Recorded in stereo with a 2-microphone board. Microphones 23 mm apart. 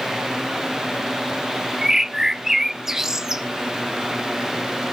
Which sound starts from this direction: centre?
A bird, at 1.8 s.